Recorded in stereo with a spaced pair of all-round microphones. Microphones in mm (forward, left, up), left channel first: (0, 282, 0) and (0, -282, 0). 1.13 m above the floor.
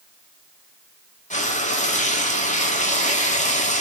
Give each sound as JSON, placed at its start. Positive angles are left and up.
{"t": 1.3, "sound": "frying", "side_deg": 10, "distance_m": 1.9}